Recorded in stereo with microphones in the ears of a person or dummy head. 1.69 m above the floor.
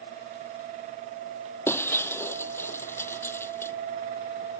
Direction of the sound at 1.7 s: 10° left (ahead or behind).